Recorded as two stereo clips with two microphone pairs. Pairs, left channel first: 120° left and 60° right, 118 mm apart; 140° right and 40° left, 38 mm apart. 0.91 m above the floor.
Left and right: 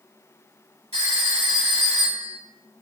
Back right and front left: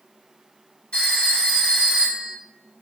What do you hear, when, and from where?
0.9 s a phone ringing: 80° right, 1.9 m